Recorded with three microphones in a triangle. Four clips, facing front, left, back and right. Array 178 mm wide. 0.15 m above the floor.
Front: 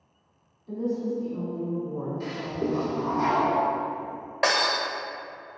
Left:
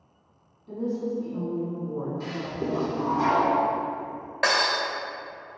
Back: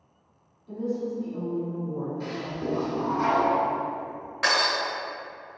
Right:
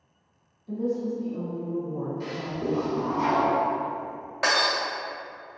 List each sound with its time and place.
0.7 s a woman speaking: 70° left, 1.3 m
2.2 s a toilet flushing: 55° left, 1.8 m
4.4 s breaking glass: 25° left, 1.7 m